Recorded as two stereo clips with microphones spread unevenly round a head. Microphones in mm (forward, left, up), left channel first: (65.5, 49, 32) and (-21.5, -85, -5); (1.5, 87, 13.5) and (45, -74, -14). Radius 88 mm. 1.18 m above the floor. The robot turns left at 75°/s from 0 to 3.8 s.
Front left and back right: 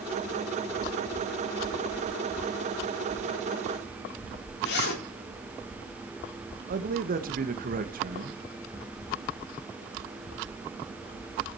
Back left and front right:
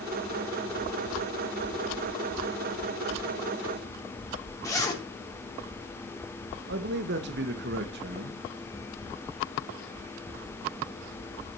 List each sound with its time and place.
4.6 s a zipper: 30° left, 3.5 m
6.7 s a man speaking: 100° right, 1.7 m